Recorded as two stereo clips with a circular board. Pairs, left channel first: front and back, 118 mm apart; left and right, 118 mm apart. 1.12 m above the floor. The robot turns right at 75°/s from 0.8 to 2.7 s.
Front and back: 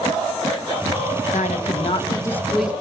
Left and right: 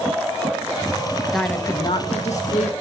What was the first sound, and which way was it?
A woman speaking, 5° right.